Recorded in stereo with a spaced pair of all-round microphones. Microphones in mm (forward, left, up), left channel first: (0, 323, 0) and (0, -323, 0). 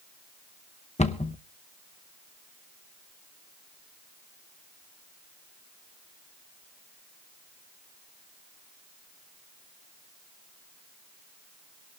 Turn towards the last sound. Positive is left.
turn(degrees=10)  # may be behind; listen again after turning